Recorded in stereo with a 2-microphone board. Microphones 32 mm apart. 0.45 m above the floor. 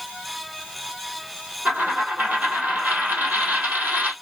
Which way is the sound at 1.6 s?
70° right (ahead or behind).